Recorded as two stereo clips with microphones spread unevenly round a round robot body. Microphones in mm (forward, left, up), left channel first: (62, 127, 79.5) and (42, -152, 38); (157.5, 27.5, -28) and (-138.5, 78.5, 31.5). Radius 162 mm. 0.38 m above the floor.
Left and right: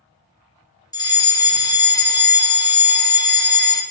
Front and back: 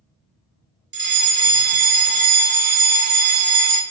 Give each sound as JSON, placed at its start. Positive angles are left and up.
{"t": 0.9, "sound": "a fire alarm", "azimuth_deg": 160, "distance_m": 1.8}